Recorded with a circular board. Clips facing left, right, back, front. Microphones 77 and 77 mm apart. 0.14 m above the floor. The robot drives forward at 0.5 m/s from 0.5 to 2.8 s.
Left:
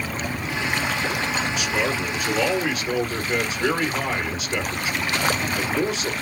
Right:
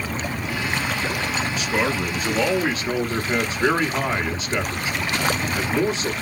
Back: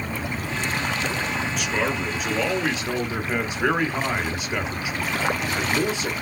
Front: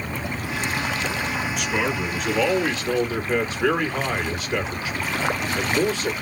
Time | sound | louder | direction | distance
1.6 | a man speaking | right 1 dB, front 1 dB | 90° right | 1.9 m